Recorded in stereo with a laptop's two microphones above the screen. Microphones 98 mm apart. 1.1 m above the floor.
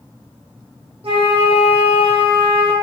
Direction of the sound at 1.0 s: 75° right (ahead or behind).